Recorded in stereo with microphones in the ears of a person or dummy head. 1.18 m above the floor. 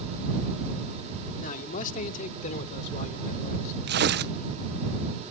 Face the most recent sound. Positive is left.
turn(degrees=-50)  # may be behind; listen again after turning